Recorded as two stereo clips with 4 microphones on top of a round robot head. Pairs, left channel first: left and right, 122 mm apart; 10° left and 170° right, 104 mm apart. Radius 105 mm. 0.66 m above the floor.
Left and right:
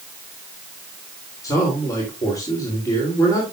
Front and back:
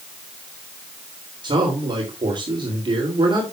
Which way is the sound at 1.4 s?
155° left.